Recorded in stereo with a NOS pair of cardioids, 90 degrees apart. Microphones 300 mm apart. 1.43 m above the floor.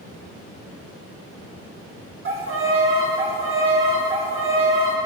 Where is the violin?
45° right, 1.8 m.